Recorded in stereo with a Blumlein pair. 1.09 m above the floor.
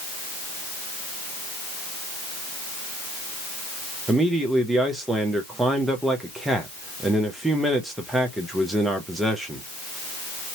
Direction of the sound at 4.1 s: 5° right.